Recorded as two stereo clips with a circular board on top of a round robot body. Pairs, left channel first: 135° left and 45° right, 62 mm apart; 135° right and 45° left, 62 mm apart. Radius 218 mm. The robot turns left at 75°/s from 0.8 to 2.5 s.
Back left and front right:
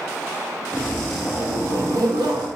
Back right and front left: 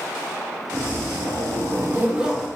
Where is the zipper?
75° left, 0.8 m; by 2.5 s 50° right, 0.8 m.